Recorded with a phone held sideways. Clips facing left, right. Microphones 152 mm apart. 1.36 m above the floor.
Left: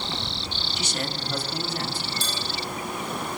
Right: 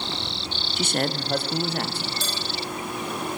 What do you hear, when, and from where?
0.8 s a man speaking: 55° right (ahead or behind), 0.5 m; by 2.1 s 70° right (ahead or behind), 2 m
2.2 s dishes clattering: 75° right (ahead or behind), 6.5 m